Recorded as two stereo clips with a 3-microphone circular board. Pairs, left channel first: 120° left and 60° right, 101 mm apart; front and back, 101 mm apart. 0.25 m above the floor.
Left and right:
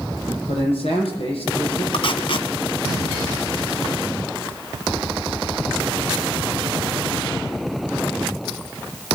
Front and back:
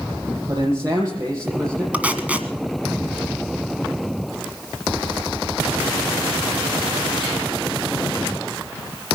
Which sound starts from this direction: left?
Tape being pulled, at 1.9 s.